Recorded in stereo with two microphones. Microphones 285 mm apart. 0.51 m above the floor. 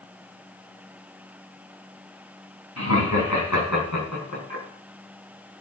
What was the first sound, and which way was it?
Laughter, 70° left (ahead or behind).